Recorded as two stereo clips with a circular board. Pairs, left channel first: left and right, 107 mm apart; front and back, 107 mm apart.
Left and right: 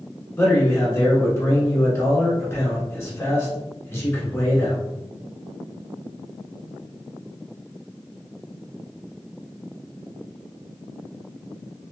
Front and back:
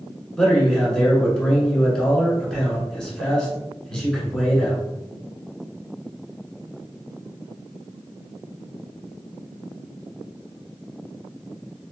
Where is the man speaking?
75° left, 1.3 m.